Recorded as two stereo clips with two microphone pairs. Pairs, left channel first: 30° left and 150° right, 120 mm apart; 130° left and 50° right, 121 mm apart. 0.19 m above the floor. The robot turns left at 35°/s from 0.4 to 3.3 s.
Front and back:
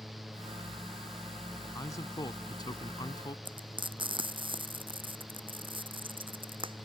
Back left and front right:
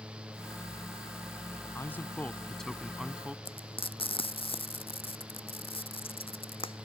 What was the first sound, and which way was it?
A man speaking, 75° left.